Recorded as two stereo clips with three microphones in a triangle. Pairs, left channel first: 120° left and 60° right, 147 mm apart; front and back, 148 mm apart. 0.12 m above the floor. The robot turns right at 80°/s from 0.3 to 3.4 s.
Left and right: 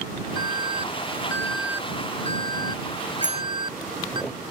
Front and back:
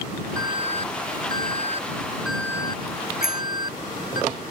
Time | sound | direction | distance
0.4 | an alarm | 115° left | ?
3.2 | a bicycle bell | straight ahead | ?